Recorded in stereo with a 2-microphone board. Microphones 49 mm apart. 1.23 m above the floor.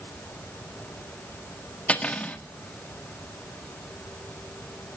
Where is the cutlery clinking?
25° left (ahead or behind), 1.5 m.